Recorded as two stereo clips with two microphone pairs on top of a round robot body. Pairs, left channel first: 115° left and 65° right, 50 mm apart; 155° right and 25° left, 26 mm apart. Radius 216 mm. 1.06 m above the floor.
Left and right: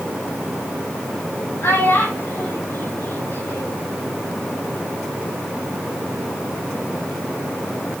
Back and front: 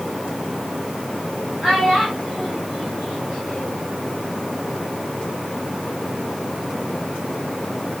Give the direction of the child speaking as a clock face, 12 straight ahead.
9 o'clock.